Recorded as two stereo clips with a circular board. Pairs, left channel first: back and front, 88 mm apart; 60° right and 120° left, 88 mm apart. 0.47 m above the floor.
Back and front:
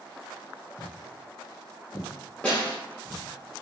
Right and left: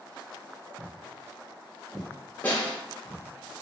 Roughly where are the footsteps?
Behind right.